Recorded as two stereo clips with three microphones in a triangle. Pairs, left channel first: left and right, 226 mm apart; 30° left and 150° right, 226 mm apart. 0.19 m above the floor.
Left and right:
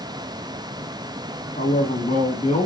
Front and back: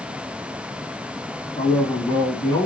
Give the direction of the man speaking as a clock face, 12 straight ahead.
9 o'clock.